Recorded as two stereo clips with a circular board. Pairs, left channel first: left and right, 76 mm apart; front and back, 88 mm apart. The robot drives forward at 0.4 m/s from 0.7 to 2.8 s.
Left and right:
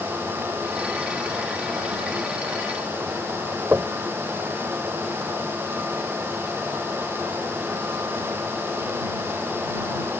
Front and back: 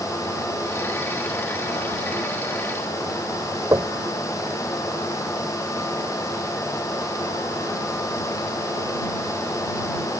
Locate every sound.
3.7 s knocking: 145° right